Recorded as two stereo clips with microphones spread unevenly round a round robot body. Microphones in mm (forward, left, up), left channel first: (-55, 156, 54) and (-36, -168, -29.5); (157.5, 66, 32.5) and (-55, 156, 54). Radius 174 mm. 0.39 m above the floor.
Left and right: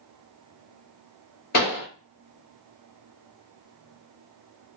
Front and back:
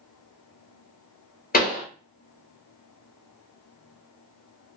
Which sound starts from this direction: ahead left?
A pop, at 1.5 s.